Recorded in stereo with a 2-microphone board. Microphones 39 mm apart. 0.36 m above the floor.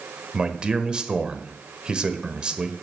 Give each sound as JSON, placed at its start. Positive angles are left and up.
{"t": 0.3, "sound": "a man speaking", "side_deg": -25, "distance_m": 1.1}